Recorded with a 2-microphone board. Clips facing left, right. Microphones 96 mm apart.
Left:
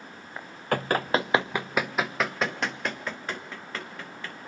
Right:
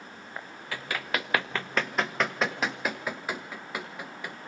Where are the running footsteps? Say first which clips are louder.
Left 8 dB; 55° left (ahead or behind), 1.0 m; by 4.4 s 15° right (ahead or behind), 4 m.